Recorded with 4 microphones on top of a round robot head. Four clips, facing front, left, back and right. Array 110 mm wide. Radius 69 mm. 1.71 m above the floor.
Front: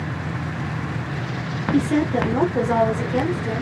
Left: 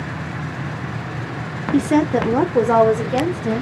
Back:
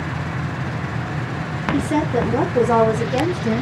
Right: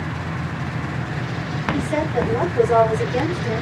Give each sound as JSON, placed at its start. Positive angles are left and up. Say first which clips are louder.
{"t": 1.7, "sound": "a woman speaking", "louder": "left 7 dB, even", "azimuth_deg": 85, "distance_m": 1.1}